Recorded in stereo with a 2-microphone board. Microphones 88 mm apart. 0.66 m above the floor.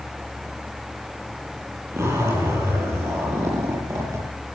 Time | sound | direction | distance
1.9 | a zipper | 35° right (ahead or behind) | 8.5 m